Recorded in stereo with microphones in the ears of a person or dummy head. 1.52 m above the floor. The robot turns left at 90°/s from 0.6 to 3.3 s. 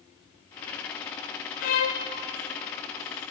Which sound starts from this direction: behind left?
A violin, at 1.6 s.